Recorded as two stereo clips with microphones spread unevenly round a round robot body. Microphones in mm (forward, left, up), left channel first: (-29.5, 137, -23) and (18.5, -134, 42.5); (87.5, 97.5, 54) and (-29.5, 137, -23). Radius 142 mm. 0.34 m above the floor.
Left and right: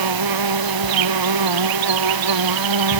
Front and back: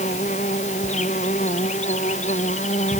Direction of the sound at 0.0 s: 80° right.